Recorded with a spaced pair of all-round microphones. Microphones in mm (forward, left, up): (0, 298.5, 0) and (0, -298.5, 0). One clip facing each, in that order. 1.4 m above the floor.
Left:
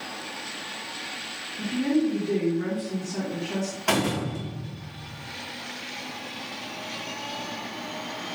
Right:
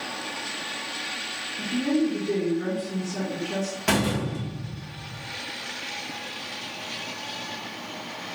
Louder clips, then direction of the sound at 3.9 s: Right 1 dB; 45° right (ahead or behind).